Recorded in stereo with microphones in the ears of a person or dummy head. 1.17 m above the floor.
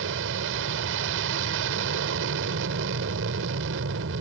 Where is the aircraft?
70° right (ahead or behind).